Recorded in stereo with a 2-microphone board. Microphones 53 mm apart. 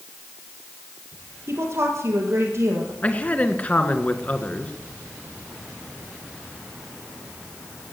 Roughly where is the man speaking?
Left.